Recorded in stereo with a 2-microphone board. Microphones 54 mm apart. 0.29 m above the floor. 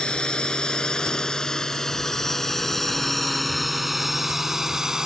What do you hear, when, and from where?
0.0 s a drone: 15° left (ahead or behind); by 5.0 s 10° right (ahead or behind)